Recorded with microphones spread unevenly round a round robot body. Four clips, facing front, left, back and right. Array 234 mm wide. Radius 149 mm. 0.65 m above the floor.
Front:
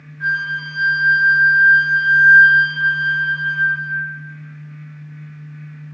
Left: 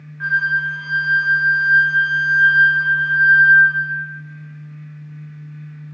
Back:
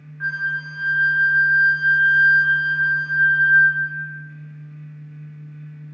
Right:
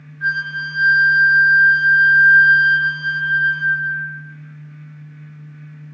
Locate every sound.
0.2 s a flute: 105° left, 1.2 m